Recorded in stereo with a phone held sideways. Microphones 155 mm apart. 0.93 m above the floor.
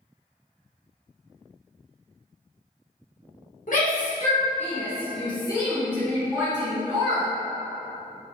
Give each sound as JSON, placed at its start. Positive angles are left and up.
{"t": 3.7, "sound": "a shout", "side_deg": 60, "distance_m": 1.4}